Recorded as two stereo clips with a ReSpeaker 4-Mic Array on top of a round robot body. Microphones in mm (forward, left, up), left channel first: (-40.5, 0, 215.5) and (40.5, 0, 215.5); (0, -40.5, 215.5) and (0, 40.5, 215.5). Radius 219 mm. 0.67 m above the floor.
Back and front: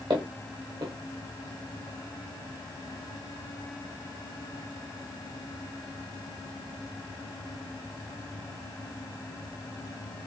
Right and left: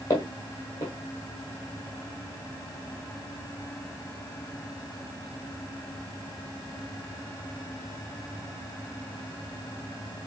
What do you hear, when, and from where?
0.1 s footsteps: 35° right, 1.0 m